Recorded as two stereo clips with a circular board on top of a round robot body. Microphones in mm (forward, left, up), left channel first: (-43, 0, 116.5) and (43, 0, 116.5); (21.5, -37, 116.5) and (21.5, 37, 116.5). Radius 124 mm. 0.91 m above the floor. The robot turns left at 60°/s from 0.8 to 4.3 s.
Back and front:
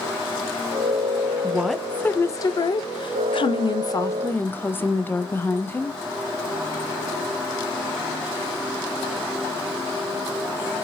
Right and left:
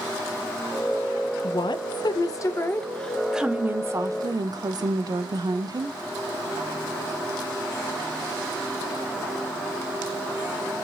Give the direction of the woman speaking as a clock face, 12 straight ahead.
2 o'clock.